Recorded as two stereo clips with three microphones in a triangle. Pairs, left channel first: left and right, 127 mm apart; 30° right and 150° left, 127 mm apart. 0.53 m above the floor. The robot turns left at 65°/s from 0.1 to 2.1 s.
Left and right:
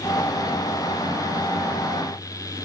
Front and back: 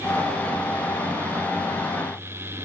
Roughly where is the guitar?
I don't hear a guitar.